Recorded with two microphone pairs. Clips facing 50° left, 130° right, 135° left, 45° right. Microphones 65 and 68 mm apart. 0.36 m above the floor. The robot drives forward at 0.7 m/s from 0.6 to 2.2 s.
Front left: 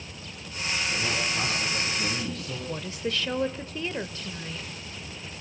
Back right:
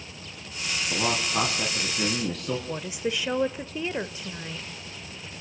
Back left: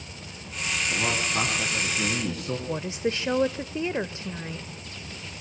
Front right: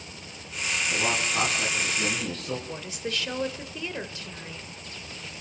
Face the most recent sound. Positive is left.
turn(degrees=170)